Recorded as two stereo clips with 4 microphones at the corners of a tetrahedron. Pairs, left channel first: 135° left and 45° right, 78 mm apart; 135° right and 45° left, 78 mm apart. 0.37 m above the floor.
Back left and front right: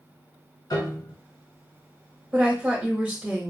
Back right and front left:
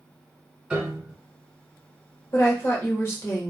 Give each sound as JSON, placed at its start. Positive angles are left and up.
{"t": 0.7, "sound": "a piano", "azimuth_deg": 125, "distance_m": 1.2}
{"t": 2.3, "sound": "a woman speaking", "azimuth_deg": -110, "distance_m": 1.1}